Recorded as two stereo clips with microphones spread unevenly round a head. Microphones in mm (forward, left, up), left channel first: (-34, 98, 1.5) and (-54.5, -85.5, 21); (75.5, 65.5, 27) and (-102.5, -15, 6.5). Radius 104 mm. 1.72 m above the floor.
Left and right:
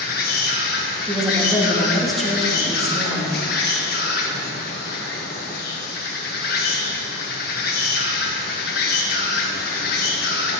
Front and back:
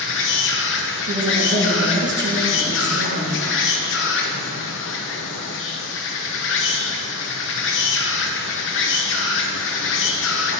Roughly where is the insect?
Ahead left.